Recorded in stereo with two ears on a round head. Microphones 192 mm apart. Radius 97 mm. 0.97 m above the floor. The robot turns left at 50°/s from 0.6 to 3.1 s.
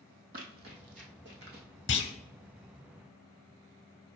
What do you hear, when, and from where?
0.3 s running footsteps: 45° right (ahead or behind), 1.5 m
1.9 s a clunk: 55° left (ahead or behind), 1.0 m; by 2.1 s 50° left (ahead or behind), 1.0 m